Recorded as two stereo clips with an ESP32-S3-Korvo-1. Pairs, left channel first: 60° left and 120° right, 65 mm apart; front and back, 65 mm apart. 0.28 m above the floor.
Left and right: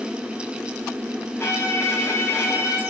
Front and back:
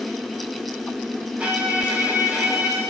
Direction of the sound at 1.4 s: 110° left.